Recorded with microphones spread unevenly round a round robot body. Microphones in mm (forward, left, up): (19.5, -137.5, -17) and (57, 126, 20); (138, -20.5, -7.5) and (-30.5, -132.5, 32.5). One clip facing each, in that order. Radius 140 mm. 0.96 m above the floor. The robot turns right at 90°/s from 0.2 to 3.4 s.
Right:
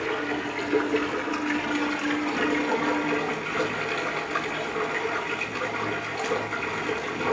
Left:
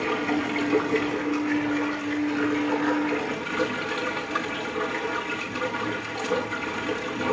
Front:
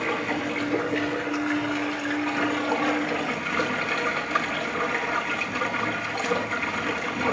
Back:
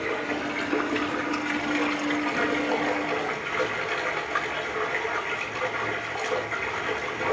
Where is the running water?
60° left, 6.5 m; by 7.3 s 10° right, 6.5 m.